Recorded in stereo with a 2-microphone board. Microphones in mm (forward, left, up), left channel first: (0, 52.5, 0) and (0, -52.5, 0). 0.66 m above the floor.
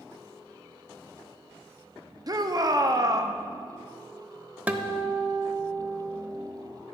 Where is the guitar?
15° right (ahead or behind), 0.7 m.